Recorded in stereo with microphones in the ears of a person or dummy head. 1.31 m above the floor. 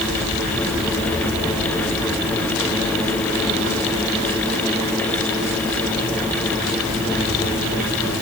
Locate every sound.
Only background noise.